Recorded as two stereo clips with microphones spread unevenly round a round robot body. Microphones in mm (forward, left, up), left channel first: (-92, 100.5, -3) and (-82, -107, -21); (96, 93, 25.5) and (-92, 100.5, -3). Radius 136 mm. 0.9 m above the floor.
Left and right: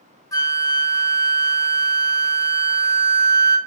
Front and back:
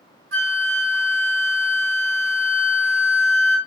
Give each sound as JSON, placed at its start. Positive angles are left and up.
{"t": 0.3, "sound": "a flute", "azimuth_deg": 165, "distance_m": 1.3}